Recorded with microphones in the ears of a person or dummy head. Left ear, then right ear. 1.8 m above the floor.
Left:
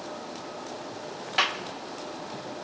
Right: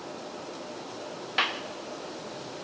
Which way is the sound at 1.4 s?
Centre (ahead or behind).